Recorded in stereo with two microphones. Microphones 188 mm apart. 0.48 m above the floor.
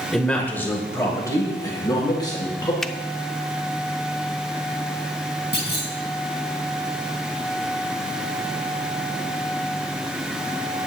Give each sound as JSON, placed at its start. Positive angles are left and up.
{"t": 0.1, "sound": "a man speaking", "side_deg": 0, "distance_m": 1.4}
{"t": 2.8, "sound": "a finger snap", "side_deg": 5, "distance_m": 0.5}
{"t": 5.5, "sound": "a clunk", "side_deg": 65, "distance_m": 2.5}